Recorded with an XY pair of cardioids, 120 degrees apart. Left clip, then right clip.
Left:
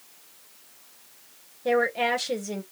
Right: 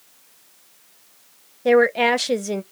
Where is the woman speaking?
45° right, 0.5 m.